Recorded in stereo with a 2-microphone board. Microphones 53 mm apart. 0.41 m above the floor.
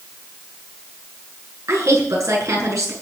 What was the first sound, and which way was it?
A woman speaking, 65° right (ahead or behind).